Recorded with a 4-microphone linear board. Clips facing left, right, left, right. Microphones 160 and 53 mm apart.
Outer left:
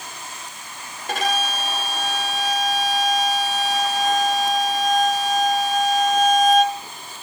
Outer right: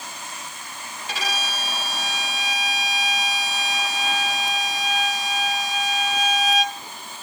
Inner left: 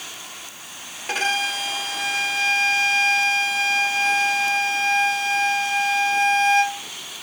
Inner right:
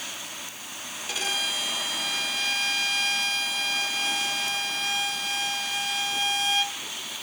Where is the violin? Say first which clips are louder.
Outer left 7 dB, inner left 7 dB; 50° left (ahead or behind), 3.5 m.